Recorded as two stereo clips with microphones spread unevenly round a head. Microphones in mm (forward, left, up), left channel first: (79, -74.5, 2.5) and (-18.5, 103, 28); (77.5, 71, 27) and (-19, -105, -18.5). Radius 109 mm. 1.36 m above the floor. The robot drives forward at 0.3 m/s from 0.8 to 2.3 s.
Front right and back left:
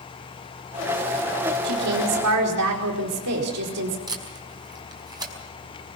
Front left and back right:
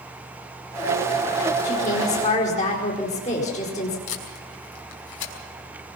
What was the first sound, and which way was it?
A woman speaking, 120° left.